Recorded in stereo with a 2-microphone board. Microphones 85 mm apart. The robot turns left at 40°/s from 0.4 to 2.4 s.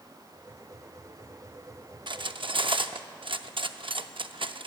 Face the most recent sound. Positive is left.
turn(degrees=-75)  # may be behind; listen again after turning